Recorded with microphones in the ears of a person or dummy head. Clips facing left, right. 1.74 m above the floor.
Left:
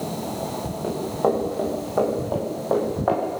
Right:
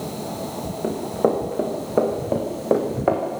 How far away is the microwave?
I don't hear a microwave.